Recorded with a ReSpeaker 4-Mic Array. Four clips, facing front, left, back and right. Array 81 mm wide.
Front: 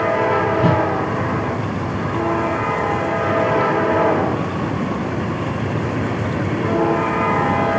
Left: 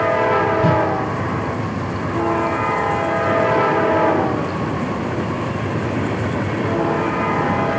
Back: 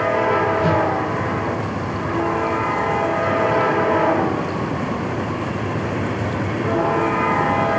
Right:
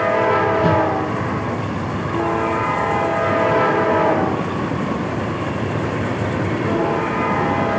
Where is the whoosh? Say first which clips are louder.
Even, front 1 dB; 15° right, 1.8 m.